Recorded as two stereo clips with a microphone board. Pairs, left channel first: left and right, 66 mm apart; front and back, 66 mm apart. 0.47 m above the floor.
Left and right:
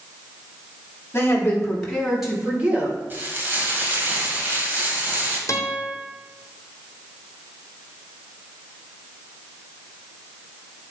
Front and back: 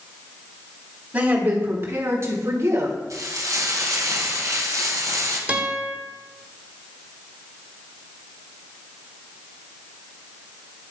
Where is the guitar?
115° left, 0.9 m.